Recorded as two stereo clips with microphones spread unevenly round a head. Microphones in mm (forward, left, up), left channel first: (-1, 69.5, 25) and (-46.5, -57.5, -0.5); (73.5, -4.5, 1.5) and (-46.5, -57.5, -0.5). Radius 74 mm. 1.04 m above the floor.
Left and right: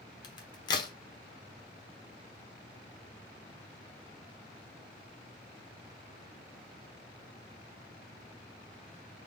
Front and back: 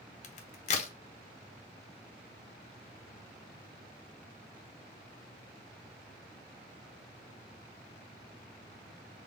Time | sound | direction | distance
0.2 | a crack | 30° left | 0.9 m